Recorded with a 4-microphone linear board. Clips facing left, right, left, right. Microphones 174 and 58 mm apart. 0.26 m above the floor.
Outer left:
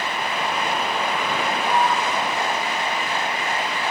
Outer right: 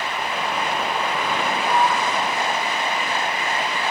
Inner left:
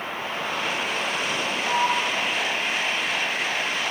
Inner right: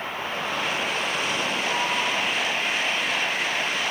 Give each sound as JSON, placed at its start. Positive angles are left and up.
{"t": 1.6, "sound": "a sliding door", "side_deg": 15, "distance_m": 2.0}